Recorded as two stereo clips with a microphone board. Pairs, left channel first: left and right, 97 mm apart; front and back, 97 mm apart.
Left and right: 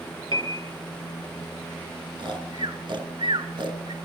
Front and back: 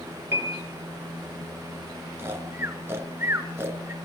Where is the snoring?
115° right, 2.5 m.